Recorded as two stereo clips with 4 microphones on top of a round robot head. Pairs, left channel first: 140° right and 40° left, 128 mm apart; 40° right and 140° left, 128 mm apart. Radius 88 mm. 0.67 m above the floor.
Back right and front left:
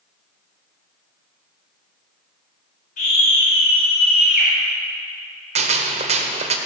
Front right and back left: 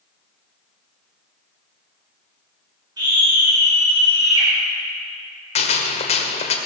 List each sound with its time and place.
3.0 s a scream: 160° right, 3.5 m
5.5 s a gunshot: straight ahead, 1.4 m